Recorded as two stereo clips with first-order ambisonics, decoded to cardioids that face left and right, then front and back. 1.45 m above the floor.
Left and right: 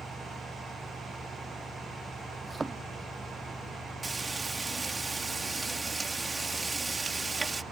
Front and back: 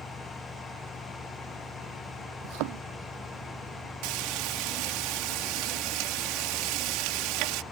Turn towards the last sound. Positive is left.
turn(degrees=-165)